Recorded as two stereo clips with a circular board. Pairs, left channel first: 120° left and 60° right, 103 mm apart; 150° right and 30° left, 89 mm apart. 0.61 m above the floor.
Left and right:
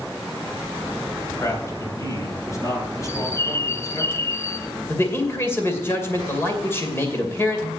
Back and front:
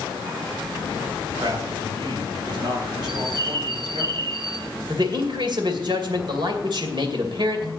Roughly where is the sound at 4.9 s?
Ahead left.